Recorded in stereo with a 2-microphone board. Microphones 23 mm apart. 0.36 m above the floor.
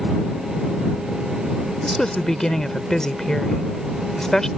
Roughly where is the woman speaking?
Left.